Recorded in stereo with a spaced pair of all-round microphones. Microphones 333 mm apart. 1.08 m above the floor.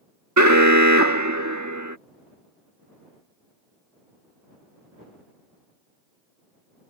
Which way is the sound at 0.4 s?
55° right (ahead or behind).